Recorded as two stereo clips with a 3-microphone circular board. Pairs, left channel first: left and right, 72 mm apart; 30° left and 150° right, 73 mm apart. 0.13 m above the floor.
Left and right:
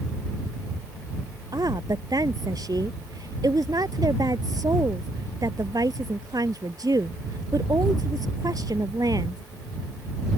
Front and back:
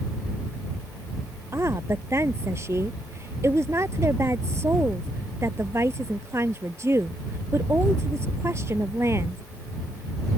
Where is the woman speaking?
105° right.